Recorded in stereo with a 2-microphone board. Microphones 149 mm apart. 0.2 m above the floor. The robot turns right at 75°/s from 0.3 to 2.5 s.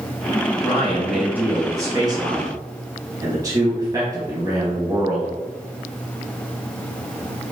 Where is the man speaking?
10° left (ahead or behind), 1.3 m; by 5.3 s 25° right (ahead or behind), 1.3 m.